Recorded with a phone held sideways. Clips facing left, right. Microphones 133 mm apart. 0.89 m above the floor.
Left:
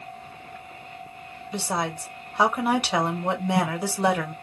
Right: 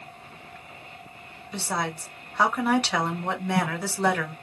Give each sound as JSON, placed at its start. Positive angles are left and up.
{"t": 1.5, "sound": "a woman speaking", "side_deg": 15, "distance_m": 1.2}